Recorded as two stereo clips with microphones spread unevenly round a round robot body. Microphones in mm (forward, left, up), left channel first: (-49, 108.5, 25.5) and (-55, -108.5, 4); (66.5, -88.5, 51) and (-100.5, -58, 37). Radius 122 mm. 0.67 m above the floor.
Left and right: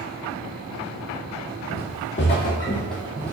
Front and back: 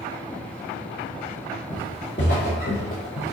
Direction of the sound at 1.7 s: 55° left.